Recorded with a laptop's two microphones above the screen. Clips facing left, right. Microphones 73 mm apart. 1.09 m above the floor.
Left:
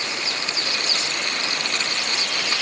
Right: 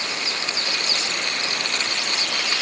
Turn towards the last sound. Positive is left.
No sound to turn to.